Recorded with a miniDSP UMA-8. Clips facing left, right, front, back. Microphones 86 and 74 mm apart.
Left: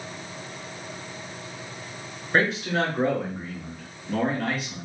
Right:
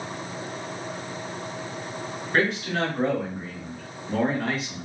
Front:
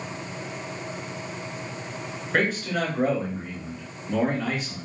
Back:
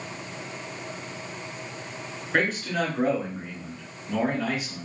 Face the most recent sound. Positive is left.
turn(degrees=-95)